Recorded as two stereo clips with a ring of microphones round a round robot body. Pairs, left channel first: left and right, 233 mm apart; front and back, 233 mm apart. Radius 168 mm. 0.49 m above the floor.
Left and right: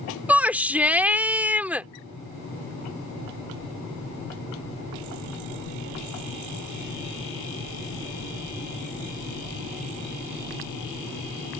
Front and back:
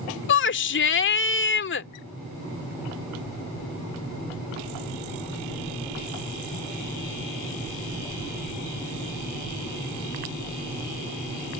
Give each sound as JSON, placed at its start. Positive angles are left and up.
{"t": 0.3, "sound": "a shout", "azimuth_deg": -10}